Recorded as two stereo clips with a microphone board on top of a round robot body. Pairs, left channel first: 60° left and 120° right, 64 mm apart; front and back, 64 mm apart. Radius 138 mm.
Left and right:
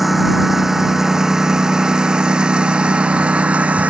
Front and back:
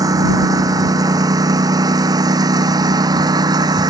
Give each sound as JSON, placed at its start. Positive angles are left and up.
{"t": 0.0, "sound": "a lawn mower", "azimuth_deg": 155}